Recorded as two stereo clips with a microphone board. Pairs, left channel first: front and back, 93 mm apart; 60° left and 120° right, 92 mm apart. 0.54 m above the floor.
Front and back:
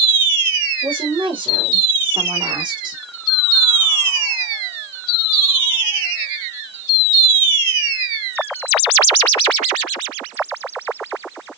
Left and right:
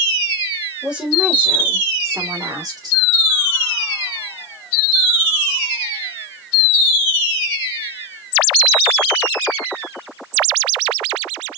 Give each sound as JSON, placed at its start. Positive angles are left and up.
{"t": 0.8, "sound": "a woman speaking", "azimuth_deg": 160, "distance_m": 2.5}